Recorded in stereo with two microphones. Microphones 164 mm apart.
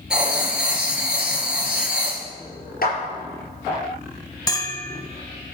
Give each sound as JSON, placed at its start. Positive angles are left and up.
{"t": 0.1, "sound": "writing", "side_deg": -5, "distance_m": 3.0}
{"t": 2.8, "sound": "a clap", "side_deg": 65, "distance_m": 4.5}
{"t": 4.5, "sound": "a bell", "side_deg": 20, "distance_m": 0.7}